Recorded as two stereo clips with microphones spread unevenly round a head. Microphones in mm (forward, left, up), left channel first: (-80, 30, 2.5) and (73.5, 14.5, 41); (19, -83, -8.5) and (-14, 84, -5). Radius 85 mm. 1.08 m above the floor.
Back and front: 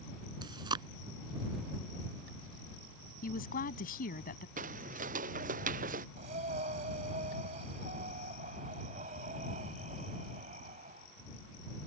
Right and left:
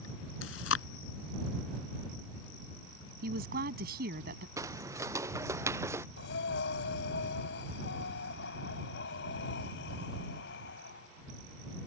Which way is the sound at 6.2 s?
55° right.